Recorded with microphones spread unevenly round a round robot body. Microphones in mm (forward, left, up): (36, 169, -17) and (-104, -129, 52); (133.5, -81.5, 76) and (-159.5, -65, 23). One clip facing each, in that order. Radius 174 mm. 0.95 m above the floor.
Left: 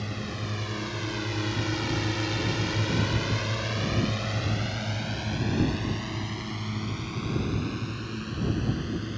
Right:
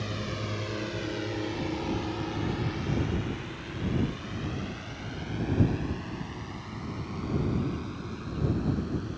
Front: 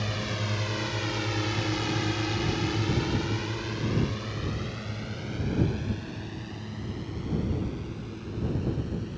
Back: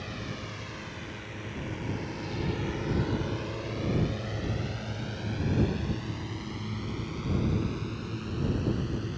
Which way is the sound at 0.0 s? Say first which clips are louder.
Even, front 5 dB; 25° right.